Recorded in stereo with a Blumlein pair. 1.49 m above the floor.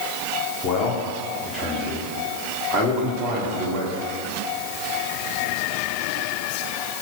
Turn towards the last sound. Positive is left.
turn(degrees=-30)